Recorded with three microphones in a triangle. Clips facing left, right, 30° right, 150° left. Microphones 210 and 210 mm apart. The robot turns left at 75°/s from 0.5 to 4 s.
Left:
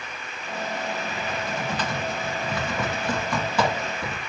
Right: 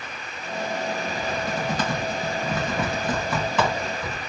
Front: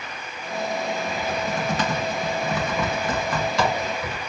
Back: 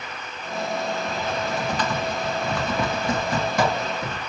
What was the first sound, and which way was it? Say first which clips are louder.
Typing on a keyboard: right 2 dB, even; 5° right.